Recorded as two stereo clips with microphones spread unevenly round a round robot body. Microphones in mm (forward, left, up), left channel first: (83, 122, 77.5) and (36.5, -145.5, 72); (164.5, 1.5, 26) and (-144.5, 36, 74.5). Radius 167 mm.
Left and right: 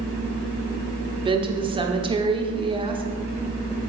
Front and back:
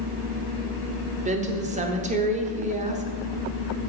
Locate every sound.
1.2 s a woman speaking: 130° right, 0.8 m